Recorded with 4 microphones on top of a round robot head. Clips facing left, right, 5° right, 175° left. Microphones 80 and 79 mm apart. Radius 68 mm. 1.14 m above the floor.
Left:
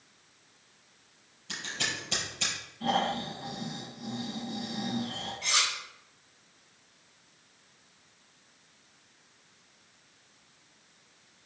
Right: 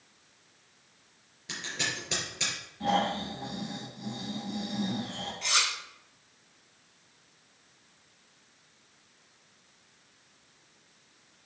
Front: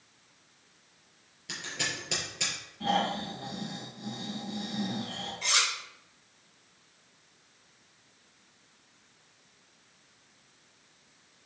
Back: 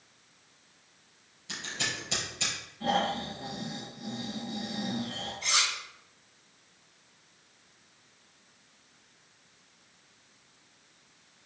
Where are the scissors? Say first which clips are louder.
Even, even; 60° right, 4 m.